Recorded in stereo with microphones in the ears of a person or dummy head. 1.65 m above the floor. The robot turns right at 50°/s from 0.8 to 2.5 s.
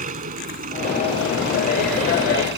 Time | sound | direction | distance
0.0 | an engine running | 140° right | ?